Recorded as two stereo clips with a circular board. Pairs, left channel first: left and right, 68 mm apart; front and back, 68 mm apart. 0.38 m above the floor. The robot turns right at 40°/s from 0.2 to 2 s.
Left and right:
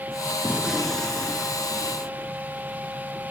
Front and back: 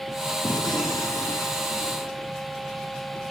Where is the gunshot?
15° right; by 2.3 s 45° left.